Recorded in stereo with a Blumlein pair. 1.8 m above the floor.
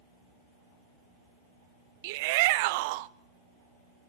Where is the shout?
50° right, 0.8 m.